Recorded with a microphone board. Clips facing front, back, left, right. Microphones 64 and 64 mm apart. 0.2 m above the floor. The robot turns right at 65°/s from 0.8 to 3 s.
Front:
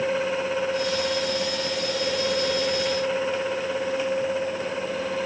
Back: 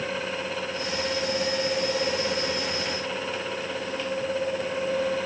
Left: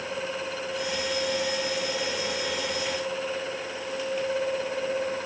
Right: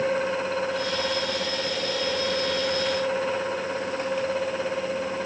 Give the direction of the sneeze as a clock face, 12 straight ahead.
I don't hear a sneeze.